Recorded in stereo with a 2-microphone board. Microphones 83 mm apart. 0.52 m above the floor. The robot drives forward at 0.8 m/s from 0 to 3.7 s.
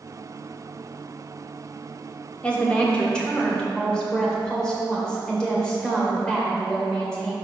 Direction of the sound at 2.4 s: 15° left (ahead or behind).